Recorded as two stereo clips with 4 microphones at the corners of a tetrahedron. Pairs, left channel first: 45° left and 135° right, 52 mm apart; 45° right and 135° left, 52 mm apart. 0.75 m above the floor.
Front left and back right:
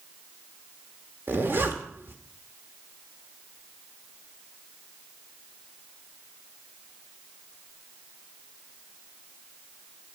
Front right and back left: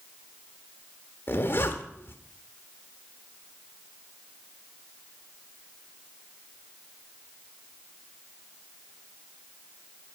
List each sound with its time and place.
1.3 s a zipper: 90° right, 1.3 m